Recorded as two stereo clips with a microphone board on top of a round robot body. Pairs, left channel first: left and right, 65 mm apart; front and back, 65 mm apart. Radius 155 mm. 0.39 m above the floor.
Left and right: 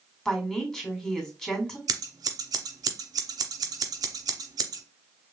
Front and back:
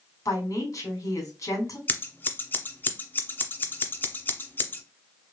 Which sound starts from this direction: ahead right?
Scissors, at 1.9 s.